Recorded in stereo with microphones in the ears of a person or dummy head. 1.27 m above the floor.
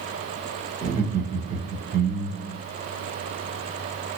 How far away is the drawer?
No drawer in this recording.